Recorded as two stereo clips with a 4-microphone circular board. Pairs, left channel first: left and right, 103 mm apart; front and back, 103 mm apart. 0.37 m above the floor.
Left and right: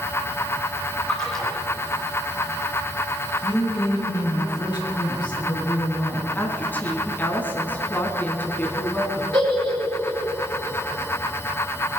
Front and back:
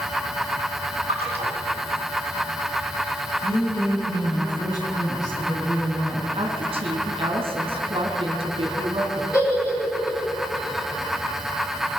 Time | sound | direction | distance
1.1 | a splash | 175° left | 4.5 m
3.4 | a woman speaking | 50° left | 4.5 m
6.3 | a woman speaking | 160° left | 3 m
9.3 | a giggle | 55° right | 7 m